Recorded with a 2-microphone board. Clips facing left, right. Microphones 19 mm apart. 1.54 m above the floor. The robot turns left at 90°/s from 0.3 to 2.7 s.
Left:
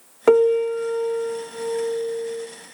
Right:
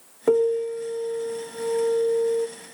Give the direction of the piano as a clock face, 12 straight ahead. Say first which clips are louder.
Left 5 dB; 8 o'clock.